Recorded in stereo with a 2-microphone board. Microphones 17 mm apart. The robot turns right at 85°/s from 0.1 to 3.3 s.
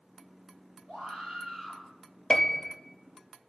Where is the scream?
90° right, 4 m; by 1.8 s 10° right, 4 m.